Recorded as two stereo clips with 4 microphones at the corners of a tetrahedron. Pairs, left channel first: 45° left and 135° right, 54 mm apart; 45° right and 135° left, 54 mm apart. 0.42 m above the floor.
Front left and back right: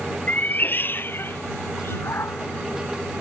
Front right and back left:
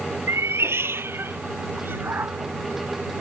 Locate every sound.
0.3 s a cat meowing: 105° left; by 3.2 s 85° left